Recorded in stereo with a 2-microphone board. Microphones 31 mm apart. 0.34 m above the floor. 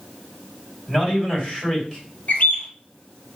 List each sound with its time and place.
0.9 s a man speaking: 5° left (ahead or behind), 1.7 m
2.3 s a bird: 65° left (ahead or behind), 0.8 m